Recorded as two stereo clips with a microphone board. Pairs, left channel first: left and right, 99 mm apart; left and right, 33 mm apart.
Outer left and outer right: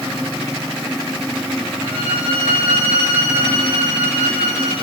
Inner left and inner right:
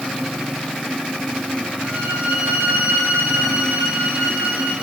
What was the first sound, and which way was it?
A violin, 75° right (ahead or behind).